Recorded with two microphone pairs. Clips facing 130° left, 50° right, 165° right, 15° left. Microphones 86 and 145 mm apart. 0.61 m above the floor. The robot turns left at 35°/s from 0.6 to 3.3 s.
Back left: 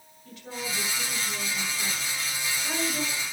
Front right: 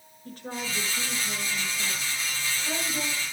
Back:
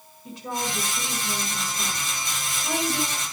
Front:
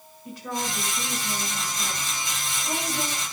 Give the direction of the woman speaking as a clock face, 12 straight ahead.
3 o'clock.